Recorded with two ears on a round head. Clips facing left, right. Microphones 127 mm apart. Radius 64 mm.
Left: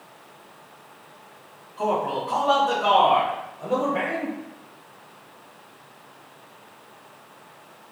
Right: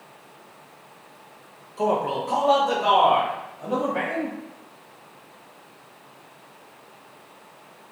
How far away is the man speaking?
About 0.8 m.